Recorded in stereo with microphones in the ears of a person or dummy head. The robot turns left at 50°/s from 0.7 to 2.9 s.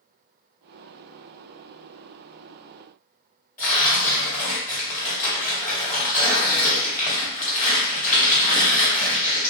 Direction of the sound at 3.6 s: 15° left (ahead or behind).